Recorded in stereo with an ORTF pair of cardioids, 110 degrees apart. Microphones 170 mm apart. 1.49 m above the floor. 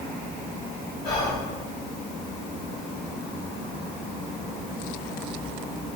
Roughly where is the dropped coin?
I don't hear a dropped coin.